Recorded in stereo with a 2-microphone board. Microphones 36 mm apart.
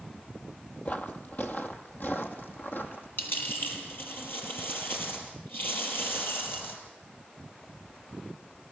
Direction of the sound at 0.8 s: 45° left (ahead or behind).